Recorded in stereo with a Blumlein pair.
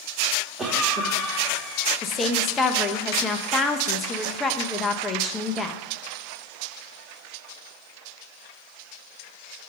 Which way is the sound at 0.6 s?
15° right.